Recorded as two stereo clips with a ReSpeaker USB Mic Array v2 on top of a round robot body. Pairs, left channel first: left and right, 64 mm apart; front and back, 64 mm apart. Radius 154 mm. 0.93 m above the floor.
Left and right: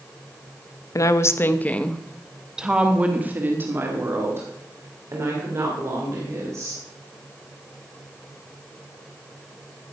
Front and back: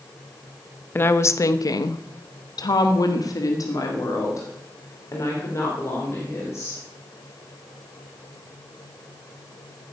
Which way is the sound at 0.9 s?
55° left.